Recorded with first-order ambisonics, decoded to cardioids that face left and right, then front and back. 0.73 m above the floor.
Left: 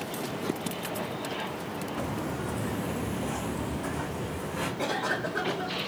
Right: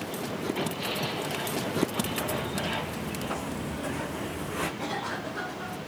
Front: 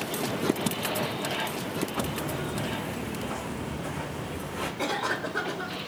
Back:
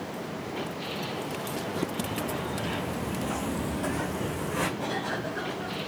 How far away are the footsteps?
About 1.9 m.